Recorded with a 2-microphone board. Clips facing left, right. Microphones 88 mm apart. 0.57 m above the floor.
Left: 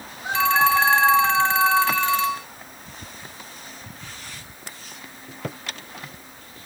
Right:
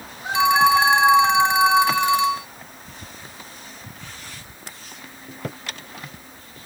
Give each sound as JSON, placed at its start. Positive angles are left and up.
{"t": 0.3, "sound": "a phone ringing", "side_deg": -15}